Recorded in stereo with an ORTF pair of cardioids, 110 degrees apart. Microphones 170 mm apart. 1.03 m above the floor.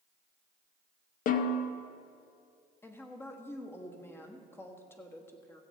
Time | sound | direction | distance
1.3 | a snare drum | 55° left | 0.8 m
2.8 | a woman speaking | 15° left | 1.4 m